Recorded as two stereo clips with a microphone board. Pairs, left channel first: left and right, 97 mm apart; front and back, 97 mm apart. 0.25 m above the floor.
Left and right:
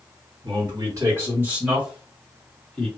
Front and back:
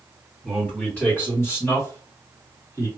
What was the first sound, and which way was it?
A man speaking, 75° right.